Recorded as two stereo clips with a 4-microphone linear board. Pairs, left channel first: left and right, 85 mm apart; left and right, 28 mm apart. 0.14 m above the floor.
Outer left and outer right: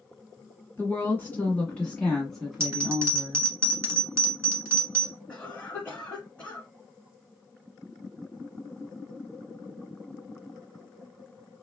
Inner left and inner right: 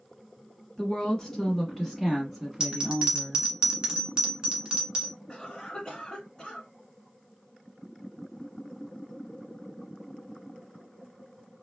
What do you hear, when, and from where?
0.8 s a woman speaking: 25° left (ahead or behind), 1.7 m; by 3.5 s 15° right (ahead or behind), 1.5 m
2.6 s a bell: 30° right (ahead or behind), 1.3 m
5.3 s a cough: 15° left (ahead or behind), 1.4 m